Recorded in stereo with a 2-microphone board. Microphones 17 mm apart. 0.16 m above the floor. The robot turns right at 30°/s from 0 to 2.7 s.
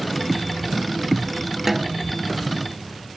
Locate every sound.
1.7 s a snare drum: 15° right (ahead or behind); by 2.0 s 20° right (ahead or behind)